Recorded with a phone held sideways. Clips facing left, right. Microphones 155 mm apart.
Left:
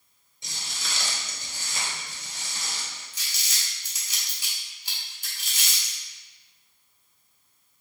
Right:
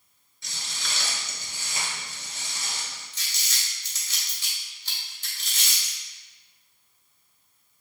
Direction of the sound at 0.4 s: 20° left (ahead or behind).